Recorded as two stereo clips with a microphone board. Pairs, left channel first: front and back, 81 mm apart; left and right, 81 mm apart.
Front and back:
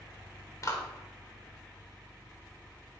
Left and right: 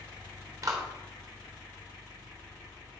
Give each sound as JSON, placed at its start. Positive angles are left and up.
{"t": 0.6, "sound": "a clap", "azimuth_deg": -45, "distance_m": 3.5}